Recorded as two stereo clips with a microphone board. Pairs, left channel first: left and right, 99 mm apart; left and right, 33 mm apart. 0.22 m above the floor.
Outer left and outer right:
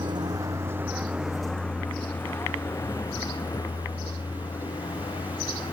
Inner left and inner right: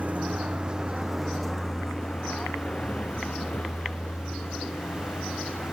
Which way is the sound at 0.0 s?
50° right (ahead or behind).